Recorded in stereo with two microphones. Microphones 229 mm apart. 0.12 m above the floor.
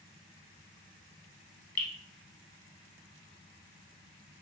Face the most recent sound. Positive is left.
turn(degrees=40)  # may be behind; listen again after turning